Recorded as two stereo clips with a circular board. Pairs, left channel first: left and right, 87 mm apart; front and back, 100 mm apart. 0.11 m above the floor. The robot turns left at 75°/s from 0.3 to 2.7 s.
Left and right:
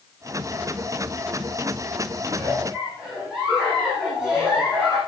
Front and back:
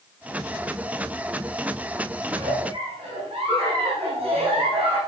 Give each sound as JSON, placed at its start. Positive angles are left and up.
{"t": 2.3, "sound": "a giggle", "azimuth_deg": -140, "distance_m": 7.0}